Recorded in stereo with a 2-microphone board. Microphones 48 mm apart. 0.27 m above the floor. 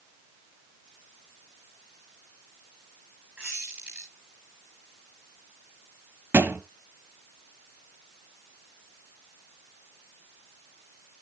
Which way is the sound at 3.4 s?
25° right (ahead or behind).